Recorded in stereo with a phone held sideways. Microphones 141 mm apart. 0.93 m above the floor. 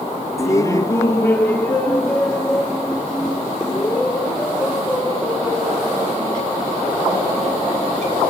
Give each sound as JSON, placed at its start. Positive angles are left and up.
{"t": 0.4, "sound": "laughter", "side_deg": 20, "distance_m": 0.7}